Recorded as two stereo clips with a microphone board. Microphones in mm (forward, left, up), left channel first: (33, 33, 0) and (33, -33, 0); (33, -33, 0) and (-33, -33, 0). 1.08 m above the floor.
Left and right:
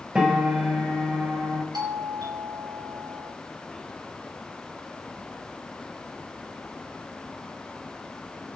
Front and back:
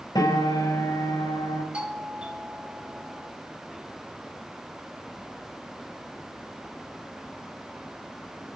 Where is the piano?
15° right, 3.5 m.